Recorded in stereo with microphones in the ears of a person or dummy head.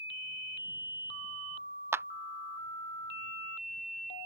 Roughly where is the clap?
Centre.